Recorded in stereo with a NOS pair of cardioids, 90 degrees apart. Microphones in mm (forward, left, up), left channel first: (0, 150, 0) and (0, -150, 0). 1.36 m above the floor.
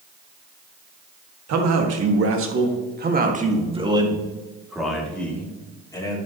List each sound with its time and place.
1.5 s a man speaking: 65° right, 2 m; by 6.2 s 15° left, 3.5 m